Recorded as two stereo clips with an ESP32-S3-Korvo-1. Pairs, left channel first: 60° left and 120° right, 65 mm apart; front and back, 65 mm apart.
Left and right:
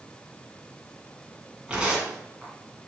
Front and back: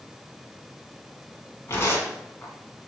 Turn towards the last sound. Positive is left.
turn(degrees=-45)